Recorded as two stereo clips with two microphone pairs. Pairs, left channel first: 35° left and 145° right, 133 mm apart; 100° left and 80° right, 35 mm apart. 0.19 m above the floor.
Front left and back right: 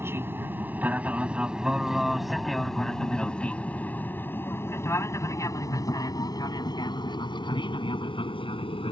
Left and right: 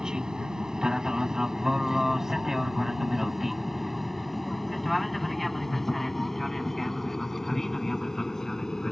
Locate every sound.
0.0 s an aircraft: 105° right; by 8.9 s 30° left